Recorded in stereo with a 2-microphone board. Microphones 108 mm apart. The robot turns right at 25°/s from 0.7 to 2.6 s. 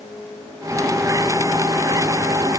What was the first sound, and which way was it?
Only background noise.